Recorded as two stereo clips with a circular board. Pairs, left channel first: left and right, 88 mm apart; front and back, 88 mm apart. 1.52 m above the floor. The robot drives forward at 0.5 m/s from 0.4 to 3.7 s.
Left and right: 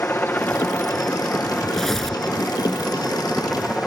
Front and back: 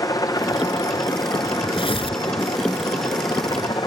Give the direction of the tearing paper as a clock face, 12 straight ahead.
12 o'clock.